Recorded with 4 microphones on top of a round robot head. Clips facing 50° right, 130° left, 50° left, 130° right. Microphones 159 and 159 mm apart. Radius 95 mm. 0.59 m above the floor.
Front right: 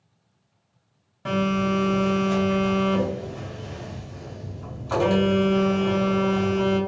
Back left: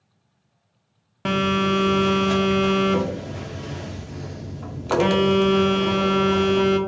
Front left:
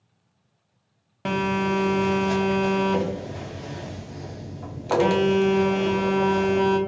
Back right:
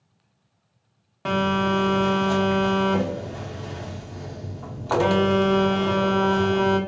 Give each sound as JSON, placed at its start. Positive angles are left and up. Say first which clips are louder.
{"t": 1.2, "sound": "a phone buzzing", "louder": "back left 2 dB, back right 1 dB", "azimuth_deg": 120, "distance_m": 0.5}